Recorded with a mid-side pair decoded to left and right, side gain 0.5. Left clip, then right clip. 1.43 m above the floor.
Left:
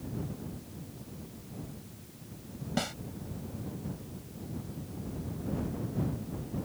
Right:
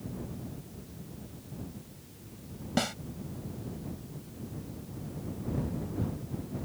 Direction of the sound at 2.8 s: 25° right.